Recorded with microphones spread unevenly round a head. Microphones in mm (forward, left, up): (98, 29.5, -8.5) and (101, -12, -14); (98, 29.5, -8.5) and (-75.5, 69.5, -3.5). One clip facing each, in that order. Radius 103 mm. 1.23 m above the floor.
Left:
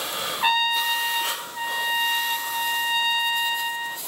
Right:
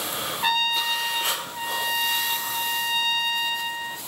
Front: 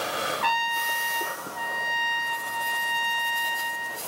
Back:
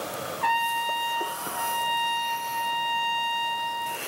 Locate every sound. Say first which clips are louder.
0.4 s a trumpet: left 2 dB, back 1 dB; 20° left, 1.1 m